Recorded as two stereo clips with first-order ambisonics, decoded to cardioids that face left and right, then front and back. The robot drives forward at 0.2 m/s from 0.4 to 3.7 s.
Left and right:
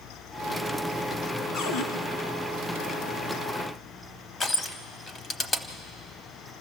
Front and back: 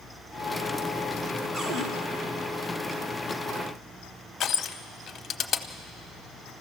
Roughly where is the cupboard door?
Behind left.